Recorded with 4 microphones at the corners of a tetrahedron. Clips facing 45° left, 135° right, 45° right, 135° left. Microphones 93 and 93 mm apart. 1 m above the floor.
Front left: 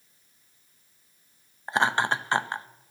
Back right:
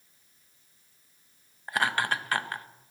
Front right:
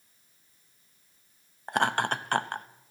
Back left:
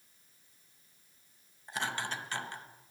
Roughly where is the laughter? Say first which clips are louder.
Front left 4 dB, front right 10 dB; ahead.